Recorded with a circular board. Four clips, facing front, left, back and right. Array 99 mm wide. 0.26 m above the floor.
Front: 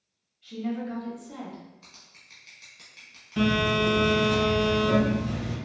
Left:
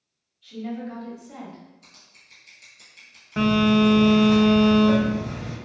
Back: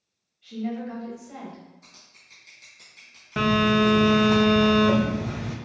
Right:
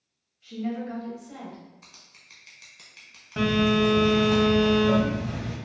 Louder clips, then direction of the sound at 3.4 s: Left 3 dB, back 3 dB; 165° left.